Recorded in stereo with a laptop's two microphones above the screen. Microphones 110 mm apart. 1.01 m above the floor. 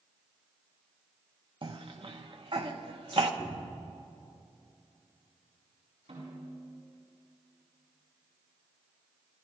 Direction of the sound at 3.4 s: 5° right (ahead or behind).